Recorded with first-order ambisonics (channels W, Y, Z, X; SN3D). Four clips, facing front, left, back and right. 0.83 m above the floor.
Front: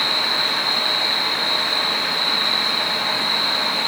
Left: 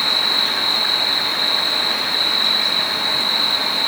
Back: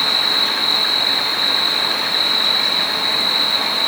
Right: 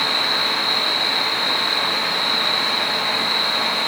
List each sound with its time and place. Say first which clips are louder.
0.0 s an insect: left 2 dB, back 3 dB; 150° left, 1.1 m